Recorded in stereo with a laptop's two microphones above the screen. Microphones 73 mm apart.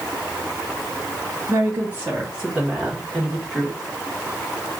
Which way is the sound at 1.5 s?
35° right (ahead or behind).